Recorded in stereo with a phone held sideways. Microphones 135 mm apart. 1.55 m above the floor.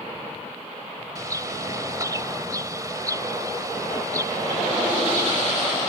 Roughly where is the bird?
Right.